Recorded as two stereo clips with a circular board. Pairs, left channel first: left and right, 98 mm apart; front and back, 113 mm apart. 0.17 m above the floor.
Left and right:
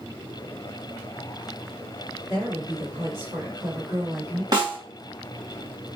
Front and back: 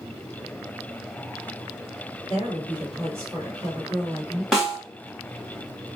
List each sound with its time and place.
2.3 s a woman speaking: 135° right, 1.9 m
4.5 s a snare drum: 95° right, 1.4 m